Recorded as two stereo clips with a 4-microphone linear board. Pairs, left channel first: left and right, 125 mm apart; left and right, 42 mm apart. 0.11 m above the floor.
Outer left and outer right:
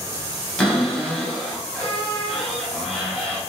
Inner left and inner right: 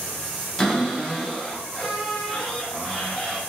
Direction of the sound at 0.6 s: 5° left (ahead or behind).